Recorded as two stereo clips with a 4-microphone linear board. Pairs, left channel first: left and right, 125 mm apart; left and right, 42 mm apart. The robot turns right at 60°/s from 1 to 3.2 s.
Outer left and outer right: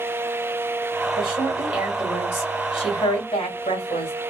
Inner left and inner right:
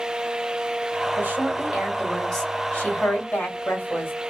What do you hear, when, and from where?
1.2 s a woman speaking: 50° right, 2.5 m; by 4.1 s 75° left, 2.5 m